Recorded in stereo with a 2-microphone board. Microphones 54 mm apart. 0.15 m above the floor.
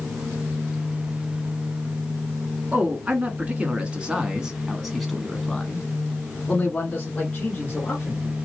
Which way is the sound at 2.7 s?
30° right (ahead or behind).